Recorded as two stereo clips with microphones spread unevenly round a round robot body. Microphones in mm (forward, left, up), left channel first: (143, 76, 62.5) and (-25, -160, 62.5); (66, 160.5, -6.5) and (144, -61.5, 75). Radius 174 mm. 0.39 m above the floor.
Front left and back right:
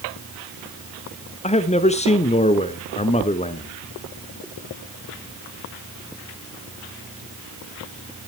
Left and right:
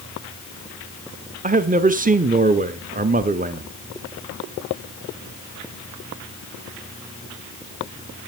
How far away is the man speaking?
About 1.1 m.